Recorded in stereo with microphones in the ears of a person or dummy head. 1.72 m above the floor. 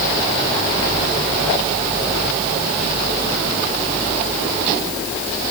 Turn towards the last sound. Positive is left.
No sound to turn to.